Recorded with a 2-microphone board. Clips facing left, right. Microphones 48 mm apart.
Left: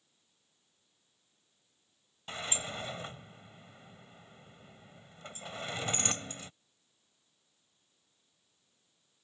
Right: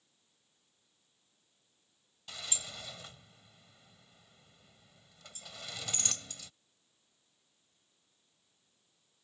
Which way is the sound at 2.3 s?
35° left (ahead or behind).